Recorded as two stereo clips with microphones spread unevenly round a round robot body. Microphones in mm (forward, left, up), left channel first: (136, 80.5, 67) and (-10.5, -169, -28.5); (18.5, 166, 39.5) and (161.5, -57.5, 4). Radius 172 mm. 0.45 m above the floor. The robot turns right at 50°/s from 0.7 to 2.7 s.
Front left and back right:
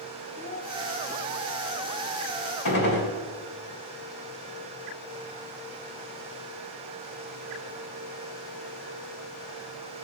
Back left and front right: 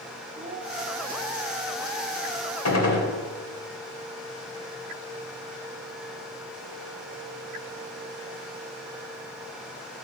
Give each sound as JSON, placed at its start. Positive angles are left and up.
{"t": 0.4, "sound": "a child speaking", "azimuth_deg": -15, "distance_m": 1.1}
{"t": 2.6, "sound": "a gunshot", "azimuth_deg": 100, "distance_m": 2.5}